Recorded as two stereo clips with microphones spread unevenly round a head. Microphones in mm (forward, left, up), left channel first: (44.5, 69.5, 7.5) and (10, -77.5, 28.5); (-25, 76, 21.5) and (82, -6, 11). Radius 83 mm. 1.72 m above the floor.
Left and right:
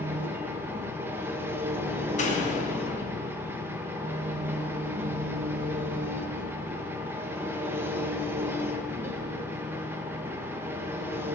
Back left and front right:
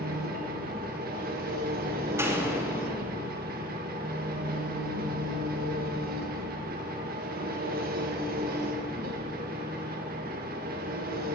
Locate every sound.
0.0 s an engine running: 30° right, 1.6 m
2.2 s a door slam: 35° left, 3 m